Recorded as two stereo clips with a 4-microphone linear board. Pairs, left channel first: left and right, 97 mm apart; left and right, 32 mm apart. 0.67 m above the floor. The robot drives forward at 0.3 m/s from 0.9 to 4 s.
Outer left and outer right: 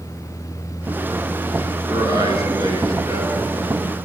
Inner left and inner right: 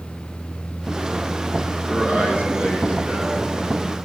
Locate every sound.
1.9 s a man speaking: 40° right (ahead or behind), 9 m; by 4.0 s 35° right (ahead or behind), 9.5 m